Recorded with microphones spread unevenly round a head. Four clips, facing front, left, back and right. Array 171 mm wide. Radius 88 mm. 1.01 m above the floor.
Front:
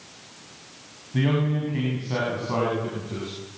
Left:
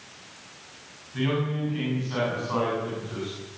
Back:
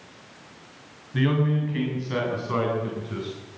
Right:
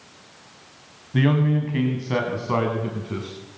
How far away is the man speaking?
About 7 m.